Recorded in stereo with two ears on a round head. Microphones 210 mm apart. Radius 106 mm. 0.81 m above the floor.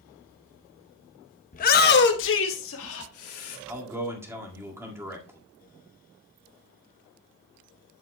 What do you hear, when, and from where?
1.5 s a shout: 35° left (ahead or behind), 0.8 m; by 3.6 s 70° left (ahead or behind), 2 m
3.7 s a man speaking: 10° right (ahead or behind), 1.9 m